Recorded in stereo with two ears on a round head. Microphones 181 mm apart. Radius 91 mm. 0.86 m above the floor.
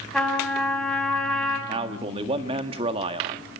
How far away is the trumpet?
About 5.5 m.